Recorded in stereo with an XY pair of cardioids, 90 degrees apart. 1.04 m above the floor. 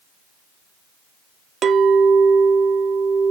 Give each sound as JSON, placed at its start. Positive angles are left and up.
{"t": 1.6, "sound": "a clink", "azimuth_deg": -60, "distance_m": 0.6}